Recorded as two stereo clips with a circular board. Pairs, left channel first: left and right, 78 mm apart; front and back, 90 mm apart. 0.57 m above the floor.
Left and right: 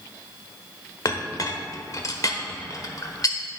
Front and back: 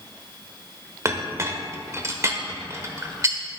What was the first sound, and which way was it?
A clink, 125° left.